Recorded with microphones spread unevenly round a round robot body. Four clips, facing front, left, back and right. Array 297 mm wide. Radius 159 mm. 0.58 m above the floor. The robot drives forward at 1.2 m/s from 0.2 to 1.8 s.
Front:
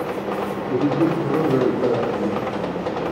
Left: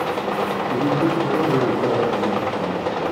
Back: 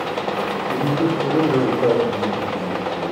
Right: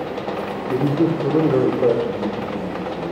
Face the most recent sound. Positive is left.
turn(degrees=-130)